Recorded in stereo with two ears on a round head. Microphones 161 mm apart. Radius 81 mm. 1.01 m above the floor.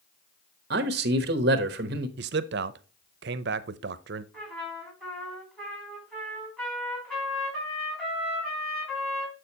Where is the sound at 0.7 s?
55° right (ahead or behind), 1.1 m.